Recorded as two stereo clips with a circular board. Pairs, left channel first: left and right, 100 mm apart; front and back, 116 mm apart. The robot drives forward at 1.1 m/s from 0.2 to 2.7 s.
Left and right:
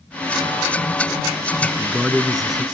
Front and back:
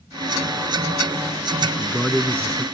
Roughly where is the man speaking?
Ahead.